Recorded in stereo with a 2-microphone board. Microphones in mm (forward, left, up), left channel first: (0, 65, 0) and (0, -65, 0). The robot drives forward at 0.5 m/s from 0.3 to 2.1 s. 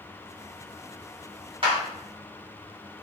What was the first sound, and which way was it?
A clap, 45° right (ahead or behind).